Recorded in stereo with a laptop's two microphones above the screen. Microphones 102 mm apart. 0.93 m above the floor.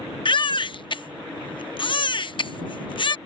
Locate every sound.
0.2 s a baby crying: 55° left (ahead or behind)